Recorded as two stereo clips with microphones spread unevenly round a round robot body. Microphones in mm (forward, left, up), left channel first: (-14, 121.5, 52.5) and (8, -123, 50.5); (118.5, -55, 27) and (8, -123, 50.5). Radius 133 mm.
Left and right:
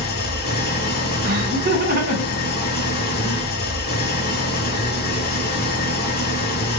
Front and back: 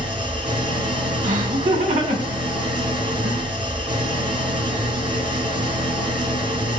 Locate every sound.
0.0 s an engine running: 145° left, 1.0 m
1.2 s laughter: 140° right, 2.5 m